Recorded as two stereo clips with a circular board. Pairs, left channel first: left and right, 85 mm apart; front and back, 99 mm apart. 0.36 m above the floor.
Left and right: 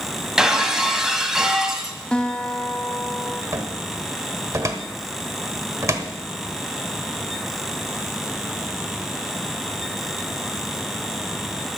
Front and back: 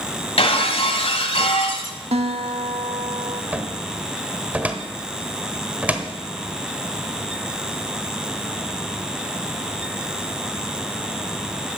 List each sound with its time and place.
0.4 s breaking glass: 5° right, 1.3 m
2.1 s a guitar: 170° left, 0.6 m
3.5 s a cupboard door: 115° right, 1.2 m